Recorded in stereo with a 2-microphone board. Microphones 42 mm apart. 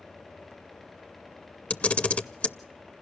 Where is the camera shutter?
30° left (ahead or behind), 0.6 m.